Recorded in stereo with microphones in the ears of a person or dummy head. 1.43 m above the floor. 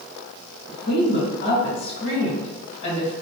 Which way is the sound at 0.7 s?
45° left (ahead or behind).